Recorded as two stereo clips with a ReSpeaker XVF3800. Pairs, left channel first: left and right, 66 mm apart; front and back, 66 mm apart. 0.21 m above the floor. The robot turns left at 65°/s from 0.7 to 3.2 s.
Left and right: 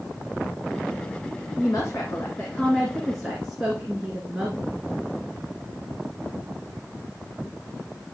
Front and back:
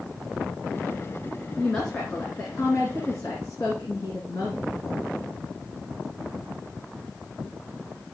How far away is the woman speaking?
About 2.5 m.